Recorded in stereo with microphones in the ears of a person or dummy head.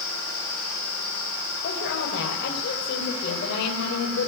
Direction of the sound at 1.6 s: 65° left (ahead or behind).